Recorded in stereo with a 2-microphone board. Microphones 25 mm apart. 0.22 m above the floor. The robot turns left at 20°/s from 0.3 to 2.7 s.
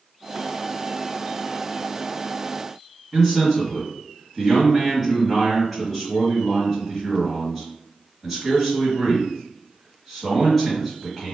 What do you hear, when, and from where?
3.1 s a man speaking: 5° left (ahead or behind), 2.0 m